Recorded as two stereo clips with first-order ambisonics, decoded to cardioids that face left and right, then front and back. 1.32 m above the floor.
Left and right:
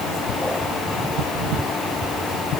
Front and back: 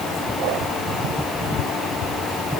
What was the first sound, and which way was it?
Only background noise.